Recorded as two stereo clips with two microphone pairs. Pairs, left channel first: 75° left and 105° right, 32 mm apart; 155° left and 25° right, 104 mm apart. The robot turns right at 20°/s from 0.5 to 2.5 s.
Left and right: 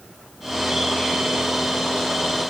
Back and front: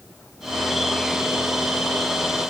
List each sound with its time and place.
Only background noise.